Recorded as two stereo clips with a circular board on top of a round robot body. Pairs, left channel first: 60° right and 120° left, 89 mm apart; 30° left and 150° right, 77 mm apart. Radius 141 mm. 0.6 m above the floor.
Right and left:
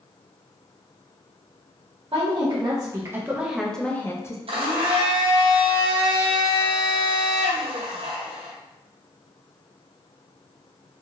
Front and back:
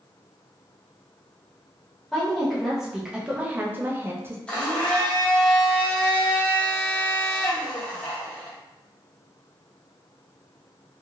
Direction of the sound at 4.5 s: 105° left.